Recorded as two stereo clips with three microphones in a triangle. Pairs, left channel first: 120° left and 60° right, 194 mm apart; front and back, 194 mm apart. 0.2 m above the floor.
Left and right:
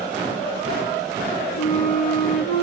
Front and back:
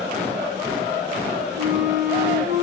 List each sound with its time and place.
1.6 s a flute: 160° left, 3.5 m